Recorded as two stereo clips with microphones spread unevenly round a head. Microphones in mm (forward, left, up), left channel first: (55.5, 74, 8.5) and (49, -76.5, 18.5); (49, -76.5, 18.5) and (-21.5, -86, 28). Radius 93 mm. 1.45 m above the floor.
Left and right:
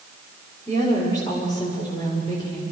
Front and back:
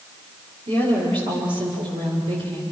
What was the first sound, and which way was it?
A woman speaking, 160° left.